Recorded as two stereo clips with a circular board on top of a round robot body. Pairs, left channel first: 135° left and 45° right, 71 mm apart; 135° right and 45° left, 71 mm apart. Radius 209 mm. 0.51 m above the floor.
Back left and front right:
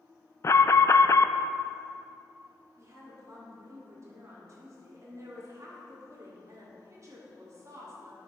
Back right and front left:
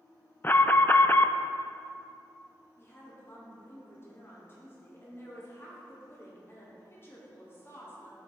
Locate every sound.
0.4 s an alarm: 170° left, 0.5 m
2.8 s a woman speaking: 85° right, 2.5 m